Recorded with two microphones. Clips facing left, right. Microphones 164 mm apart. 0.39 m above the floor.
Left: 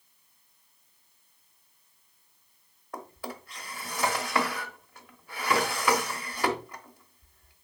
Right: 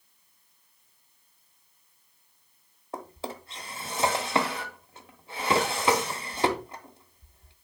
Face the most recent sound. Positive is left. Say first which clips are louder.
# right 2 dB
turn(degrees=-25)  # may be behind; listen again after turning